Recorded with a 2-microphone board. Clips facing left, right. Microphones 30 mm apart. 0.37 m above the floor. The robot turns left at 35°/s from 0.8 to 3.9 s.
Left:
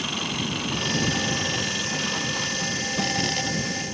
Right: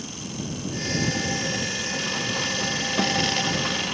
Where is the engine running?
55° left; by 3.9 s 55° right.